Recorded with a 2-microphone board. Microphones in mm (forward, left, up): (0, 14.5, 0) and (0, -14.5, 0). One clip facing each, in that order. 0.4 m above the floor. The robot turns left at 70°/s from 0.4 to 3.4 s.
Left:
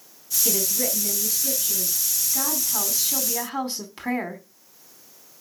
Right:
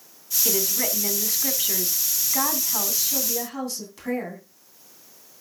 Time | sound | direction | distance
0.5 | a woman speaking | 15° right | 2.5 m